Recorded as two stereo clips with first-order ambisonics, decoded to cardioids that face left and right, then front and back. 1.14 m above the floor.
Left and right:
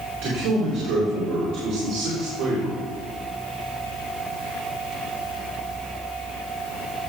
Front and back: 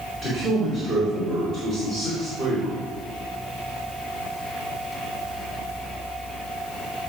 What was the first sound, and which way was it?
A man speaking, 115° right.